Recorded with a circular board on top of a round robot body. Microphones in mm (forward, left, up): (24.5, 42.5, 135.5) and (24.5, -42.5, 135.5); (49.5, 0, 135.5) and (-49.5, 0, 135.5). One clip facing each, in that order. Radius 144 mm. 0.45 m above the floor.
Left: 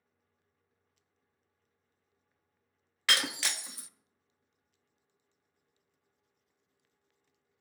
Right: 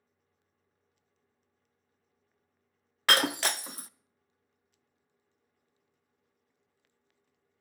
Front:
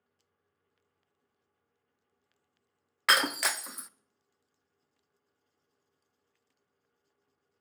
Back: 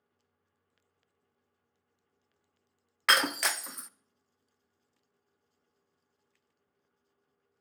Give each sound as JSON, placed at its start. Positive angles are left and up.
{"t": 3.1, "sound": "breaking glass", "azimuth_deg": -90, "distance_m": 0.6}